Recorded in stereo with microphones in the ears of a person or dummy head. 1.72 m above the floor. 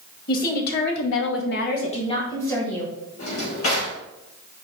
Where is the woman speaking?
50° left (ahead or behind), 2 m; by 2.9 s 5° left (ahead or behind), 2.5 m.